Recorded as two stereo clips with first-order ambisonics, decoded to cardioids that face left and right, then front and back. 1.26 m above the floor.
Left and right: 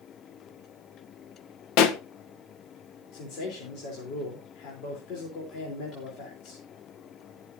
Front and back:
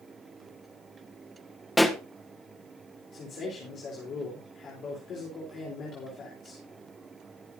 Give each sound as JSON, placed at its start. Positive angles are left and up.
{"t": 1.8, "sound": "a pop", "azimuth_deg": 85, "distance_m": 1.0}
{"t": 3.1, "sound": "a man speaking", "azimuth_deg": 55, "distance_m": 4.0}